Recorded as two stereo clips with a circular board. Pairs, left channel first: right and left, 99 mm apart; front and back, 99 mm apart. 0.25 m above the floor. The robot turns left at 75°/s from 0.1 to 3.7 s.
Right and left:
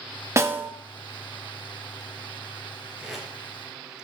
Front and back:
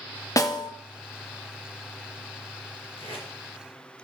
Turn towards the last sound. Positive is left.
turn(degrees=-40)